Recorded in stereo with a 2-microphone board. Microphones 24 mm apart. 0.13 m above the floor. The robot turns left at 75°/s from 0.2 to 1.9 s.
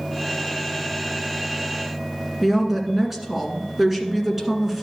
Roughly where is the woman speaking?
Centre.